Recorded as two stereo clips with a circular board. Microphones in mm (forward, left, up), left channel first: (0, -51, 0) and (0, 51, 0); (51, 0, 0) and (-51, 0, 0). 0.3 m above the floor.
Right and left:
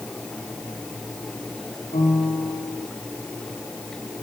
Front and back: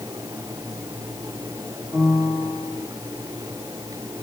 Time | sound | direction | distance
1.9 | a piano | 75° right | 7.5 m